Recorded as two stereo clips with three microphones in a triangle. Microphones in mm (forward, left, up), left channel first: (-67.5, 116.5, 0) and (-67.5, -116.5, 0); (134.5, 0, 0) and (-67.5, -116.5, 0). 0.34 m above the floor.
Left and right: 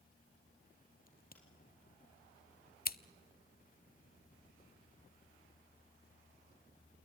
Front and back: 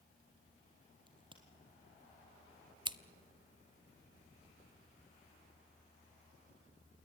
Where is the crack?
140° left, 3.5 m.